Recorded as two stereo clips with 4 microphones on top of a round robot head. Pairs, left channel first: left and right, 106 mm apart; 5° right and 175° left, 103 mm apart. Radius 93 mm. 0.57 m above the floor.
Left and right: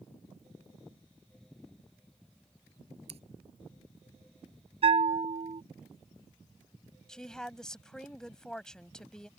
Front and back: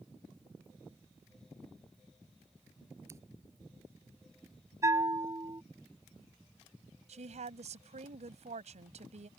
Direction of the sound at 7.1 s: 175° left.